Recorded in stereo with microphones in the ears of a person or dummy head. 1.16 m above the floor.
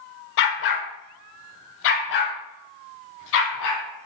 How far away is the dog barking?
About 1.8 m.